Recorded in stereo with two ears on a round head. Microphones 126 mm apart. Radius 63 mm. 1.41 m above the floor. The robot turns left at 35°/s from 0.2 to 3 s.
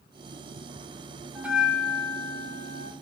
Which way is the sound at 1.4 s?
165° right.